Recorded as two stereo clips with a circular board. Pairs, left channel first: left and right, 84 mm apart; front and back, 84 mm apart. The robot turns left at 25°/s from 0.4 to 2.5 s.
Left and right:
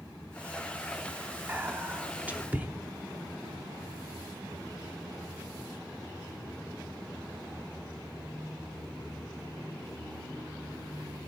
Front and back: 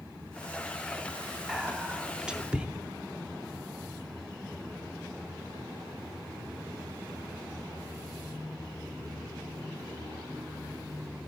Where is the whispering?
100° right, 0.7 m; by 2.7 s 125° right, 0.7 m.